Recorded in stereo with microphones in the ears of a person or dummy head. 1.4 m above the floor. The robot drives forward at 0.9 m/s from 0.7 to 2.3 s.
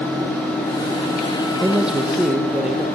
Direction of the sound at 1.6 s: Centre (ahead or behind).